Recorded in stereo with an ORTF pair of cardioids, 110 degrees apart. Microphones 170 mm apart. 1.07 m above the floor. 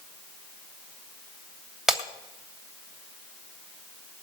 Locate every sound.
1.9 s breaking glass: 5° right, 2.5 m